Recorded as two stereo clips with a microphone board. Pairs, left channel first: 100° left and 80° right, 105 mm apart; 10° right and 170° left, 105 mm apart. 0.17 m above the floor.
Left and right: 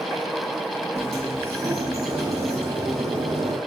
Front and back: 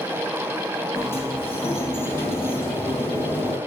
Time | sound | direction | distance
0.9 | a sliding door | 80° right | 3 m